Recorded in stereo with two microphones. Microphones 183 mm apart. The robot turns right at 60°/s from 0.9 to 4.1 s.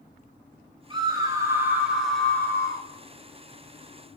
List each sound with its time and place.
0.9 s a scream: 25° right (ahead or behind), 1.0 m; by 2.9 s 20° left (ahead or behind), 1.0 m